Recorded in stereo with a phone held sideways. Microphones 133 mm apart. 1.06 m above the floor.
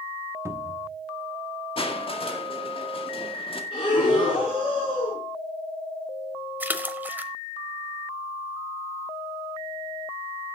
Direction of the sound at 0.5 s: 20° right (ahead or behind).